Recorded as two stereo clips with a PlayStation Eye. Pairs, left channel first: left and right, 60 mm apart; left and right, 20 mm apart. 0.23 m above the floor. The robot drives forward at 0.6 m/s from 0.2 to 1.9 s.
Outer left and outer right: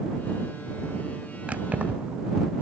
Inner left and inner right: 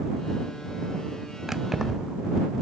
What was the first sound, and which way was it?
Keys jangling, 25° right (ahead or behind).